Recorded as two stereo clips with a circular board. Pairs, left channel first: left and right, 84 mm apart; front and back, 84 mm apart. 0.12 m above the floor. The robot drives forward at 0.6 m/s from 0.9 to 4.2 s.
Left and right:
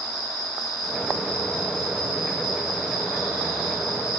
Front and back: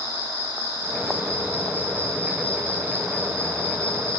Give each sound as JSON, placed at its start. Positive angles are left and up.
{"t": 0.0, "sound": "an insect", "azimuth_deg": -60, "distance_m": 6.5}